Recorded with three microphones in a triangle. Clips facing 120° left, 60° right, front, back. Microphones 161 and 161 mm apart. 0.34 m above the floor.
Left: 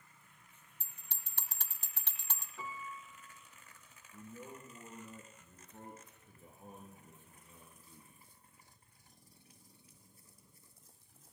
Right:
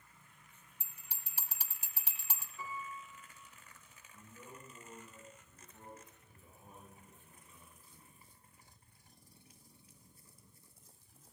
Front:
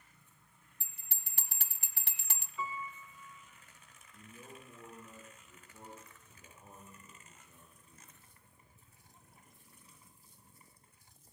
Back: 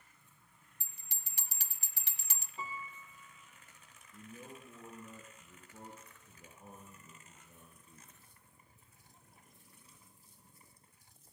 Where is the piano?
125° left, 2 m.